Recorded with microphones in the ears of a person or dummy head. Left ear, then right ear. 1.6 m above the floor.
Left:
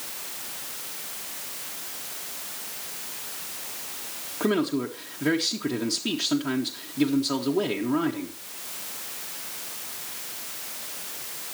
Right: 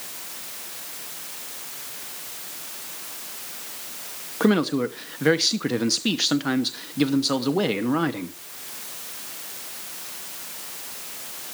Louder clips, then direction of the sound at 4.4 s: Right 4 dB; 35° right (ahead or behind).